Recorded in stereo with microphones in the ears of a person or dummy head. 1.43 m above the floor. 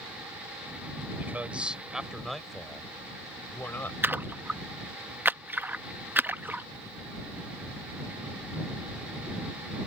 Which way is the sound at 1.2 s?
5° right (ahead or behind).